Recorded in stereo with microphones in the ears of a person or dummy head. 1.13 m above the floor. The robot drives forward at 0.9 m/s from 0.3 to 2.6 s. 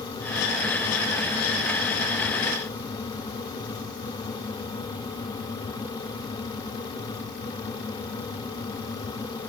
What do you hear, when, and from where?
Only background noise.